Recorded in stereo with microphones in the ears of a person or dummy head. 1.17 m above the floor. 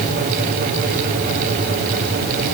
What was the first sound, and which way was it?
Only background noise.